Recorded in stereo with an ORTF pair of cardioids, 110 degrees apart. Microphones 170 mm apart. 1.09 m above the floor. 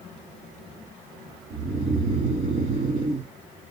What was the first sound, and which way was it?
Snoring, 50° right.